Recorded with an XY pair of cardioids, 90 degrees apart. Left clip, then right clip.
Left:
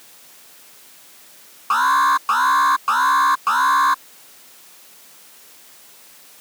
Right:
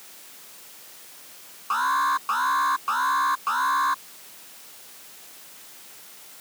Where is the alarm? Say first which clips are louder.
Left 7 dB; 50° left.